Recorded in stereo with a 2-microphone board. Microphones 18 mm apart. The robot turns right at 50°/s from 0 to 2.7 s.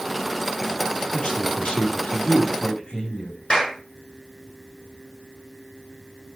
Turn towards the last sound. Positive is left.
turn(degrees=40)  # may be behind; listen again after turning